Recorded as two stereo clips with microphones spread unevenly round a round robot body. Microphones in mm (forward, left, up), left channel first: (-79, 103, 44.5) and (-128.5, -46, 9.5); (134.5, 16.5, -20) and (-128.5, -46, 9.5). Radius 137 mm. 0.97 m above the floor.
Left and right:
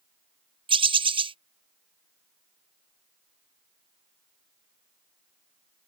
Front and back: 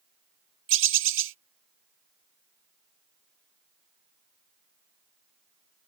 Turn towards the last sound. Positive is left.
turn(degrees=-130)